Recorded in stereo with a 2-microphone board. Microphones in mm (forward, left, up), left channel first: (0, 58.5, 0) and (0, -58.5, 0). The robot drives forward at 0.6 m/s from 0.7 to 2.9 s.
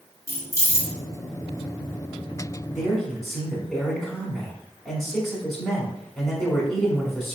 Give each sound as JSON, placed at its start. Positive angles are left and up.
{"t": 0.3, "sound": "keys jangling", "side_deg": 25, "distance_m": 0.9}
{"t": 2.8, "sound": "a man speaking", "side_deg": 0, "distance_m": 1.3}